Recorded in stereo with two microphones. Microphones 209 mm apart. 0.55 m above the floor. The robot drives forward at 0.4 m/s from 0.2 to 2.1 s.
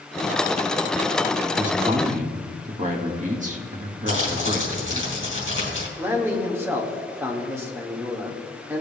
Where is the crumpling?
60° left (ahead or behind), 3 m.